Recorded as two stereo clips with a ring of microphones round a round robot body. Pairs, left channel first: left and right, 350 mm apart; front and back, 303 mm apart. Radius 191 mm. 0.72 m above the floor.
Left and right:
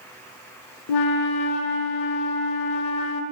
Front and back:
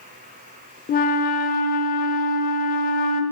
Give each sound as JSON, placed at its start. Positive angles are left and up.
{"t": 0.9, "sound": "a flute", "azimuth_deg": 60, "distance_m": 0.7}